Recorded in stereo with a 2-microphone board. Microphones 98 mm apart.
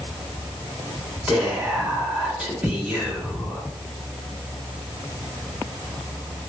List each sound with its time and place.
1.3 s whispering: 15° right (ahead or behind), 1.0 m